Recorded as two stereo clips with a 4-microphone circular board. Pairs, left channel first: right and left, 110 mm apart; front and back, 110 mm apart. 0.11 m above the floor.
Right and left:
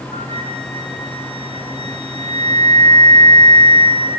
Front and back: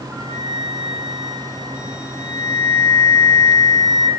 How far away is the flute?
About 3 m.